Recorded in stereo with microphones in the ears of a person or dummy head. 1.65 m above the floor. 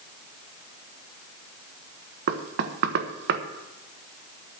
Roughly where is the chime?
No chime in this recording.